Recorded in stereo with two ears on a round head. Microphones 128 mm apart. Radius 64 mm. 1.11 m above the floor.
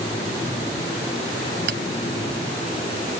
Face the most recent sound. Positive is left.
turn(degrees=-80)